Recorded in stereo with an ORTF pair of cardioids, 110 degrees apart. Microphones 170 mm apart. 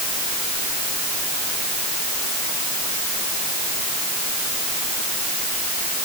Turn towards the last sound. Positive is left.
No sound to turn to.